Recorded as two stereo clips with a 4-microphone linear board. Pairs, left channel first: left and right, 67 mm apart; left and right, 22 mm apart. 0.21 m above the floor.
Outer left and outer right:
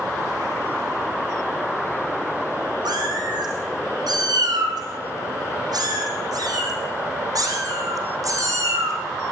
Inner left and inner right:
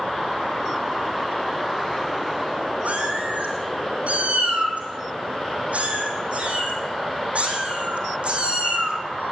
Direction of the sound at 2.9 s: 80° right.